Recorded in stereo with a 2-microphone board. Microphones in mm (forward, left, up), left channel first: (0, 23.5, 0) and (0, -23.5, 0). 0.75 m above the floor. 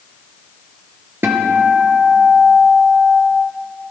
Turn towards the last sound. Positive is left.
turn(degrees=-55)  # may be behind; listen again after turning